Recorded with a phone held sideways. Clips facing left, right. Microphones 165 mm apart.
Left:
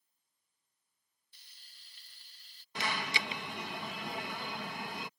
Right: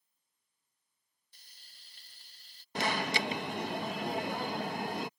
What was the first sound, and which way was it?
Frying, 45° right (ahead or behind).